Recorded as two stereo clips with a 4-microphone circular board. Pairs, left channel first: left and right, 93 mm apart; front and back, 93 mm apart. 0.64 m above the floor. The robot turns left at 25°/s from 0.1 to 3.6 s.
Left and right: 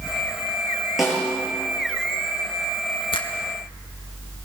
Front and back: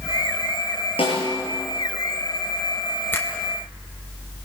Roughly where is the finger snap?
Ahead left.